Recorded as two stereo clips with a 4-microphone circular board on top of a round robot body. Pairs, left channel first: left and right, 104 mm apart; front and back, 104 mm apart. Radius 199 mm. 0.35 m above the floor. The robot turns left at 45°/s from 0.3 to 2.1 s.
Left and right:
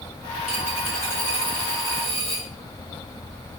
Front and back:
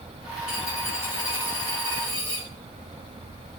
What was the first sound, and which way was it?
A dropped coin, straight ahead.